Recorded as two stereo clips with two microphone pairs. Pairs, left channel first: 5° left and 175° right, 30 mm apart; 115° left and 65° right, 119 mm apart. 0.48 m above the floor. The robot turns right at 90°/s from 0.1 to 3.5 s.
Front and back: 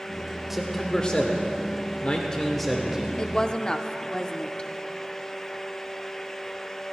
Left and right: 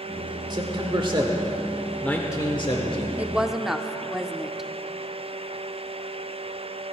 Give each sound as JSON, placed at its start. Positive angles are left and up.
{"t": 0.5, "sound": "a man speaking", "azimuth_deg": -100, "distance_m": 1.2}
{"t": 3.2, "sound": "a woman speaking", "azimuth_deg": -15, "distance_m": 0.7}